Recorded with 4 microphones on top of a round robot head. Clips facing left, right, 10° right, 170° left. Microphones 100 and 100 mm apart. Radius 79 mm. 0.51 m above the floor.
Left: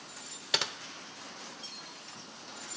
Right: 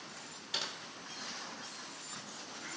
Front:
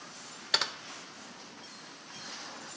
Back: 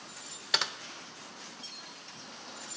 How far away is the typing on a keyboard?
About 0.9 m.